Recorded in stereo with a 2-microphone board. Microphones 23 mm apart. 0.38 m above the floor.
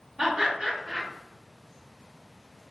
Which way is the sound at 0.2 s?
30° right (ahead or behind).